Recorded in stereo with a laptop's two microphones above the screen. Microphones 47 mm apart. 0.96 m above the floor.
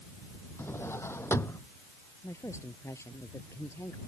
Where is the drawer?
70° left (ahead or behind).